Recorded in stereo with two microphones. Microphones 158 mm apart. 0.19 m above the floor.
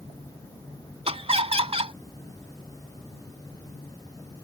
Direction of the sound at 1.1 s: 40° right (ahead or behind).